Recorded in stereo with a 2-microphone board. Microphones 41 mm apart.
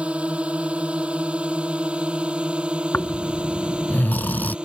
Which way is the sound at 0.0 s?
35° right (ahead or behind).